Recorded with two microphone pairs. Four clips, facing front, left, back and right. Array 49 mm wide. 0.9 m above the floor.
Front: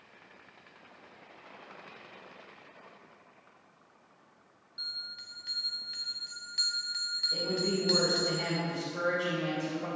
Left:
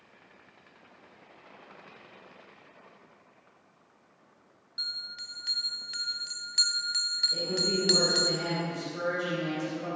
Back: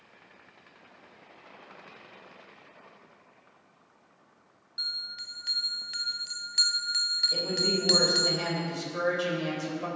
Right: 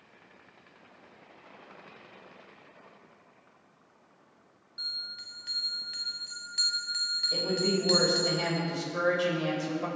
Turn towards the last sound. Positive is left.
turn(degrees=-135)